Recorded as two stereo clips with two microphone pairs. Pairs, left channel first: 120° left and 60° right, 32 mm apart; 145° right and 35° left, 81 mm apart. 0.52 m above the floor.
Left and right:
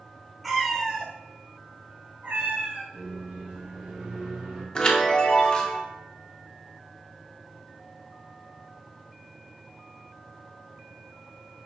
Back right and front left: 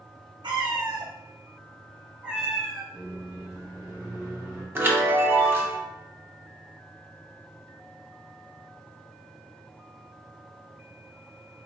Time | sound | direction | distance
0.4 | a cat meowing | 30° left | 0.9 m
2.9 | a microwave | 35° right | 2 m
4.8 | a chime | 75° left | 0.7 m